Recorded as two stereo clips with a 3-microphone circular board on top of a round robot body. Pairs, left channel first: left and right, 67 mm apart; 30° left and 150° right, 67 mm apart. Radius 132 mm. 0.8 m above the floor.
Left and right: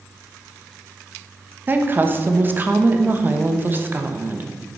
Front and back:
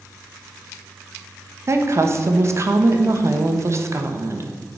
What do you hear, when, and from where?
1.7 s a woman speaking: 135° right, 1.3 m